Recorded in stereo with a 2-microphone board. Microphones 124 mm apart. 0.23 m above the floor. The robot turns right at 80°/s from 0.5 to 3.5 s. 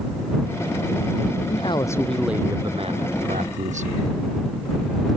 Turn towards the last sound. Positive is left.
turn(degrees=-75)